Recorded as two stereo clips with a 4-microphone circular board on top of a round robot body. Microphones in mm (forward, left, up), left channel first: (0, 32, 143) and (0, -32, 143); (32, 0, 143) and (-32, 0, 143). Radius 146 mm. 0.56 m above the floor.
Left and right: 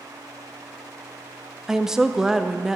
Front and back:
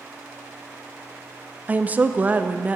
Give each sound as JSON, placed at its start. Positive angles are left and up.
{"t": 1.7, "sound": "a woman speaking", "azimuth_deg": -160, "distance_m": 0.6}